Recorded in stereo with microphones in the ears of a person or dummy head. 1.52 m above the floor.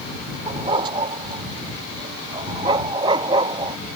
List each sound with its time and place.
0.5 s a dog barking: 25° right (ahead or behind)